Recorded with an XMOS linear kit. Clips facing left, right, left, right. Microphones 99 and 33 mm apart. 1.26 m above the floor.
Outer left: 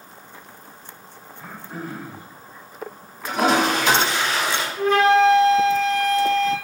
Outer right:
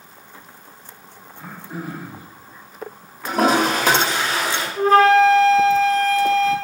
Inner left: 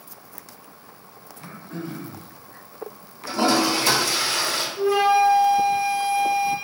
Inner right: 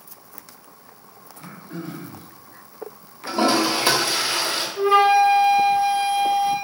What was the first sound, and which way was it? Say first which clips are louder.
Throat clearing: outer right 2 dB, even; 15° right (ahead or behind).